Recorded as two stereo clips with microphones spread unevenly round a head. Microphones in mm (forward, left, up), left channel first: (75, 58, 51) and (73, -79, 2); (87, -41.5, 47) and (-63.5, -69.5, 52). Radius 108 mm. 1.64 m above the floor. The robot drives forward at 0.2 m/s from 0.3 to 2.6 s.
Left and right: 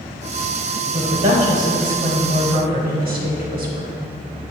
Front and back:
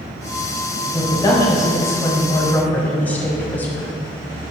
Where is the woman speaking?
55° right, 1.2 m; by 3.9 s 70° right, 1.0 m.